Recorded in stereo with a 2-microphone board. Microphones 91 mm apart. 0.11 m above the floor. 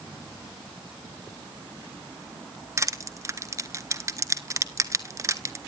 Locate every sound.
2.8 s crushing: 35° right (ahead or behind), 0.7 m